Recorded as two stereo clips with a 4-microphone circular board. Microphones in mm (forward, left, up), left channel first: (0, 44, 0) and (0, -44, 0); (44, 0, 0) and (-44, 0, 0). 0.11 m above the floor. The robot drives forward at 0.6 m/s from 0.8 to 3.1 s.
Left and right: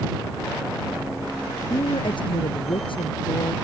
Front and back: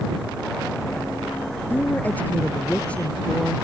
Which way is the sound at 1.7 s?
70° left.